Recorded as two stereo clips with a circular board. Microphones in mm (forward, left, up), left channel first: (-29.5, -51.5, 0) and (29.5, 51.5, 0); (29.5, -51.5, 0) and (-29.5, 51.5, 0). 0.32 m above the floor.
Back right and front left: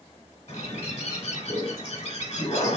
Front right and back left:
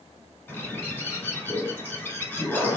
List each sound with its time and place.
0.5 s a bird: 135° right, 1.3 m